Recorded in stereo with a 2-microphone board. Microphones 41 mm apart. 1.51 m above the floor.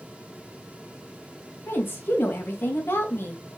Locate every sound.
1.7 s a woman speaking: 65° left (ahead or behind), 2.5 m